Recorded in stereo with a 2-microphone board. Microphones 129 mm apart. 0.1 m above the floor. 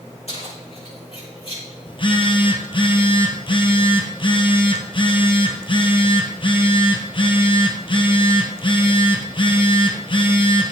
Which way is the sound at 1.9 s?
45° left (ahead or behind).